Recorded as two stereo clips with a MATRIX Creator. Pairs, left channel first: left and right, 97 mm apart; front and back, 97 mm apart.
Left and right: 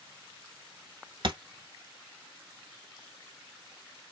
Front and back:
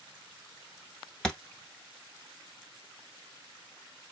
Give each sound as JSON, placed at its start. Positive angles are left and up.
{"t": 1.2, "sound": "a thud", "azimuth_deg": -80, "distance_m": 0.8}